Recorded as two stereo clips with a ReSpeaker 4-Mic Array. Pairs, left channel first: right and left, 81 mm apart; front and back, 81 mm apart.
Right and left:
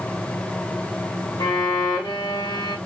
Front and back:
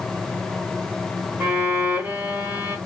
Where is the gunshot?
No gunshot in this recording.